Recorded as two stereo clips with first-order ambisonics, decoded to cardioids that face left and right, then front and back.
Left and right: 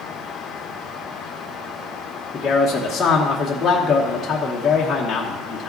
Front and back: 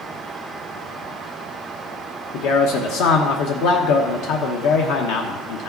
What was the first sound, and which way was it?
A man speaking, 15° left.